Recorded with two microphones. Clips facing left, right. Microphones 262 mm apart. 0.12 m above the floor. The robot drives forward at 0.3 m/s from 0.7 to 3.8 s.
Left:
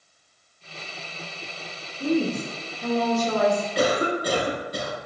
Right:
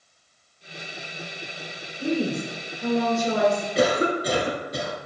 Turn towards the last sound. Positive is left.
turn(degrees=-25)  # may be behind; listen again after turning